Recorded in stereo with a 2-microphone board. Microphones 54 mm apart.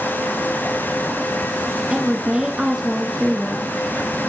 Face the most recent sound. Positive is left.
turn(degrees=-15)  # may be behind; listen again after turning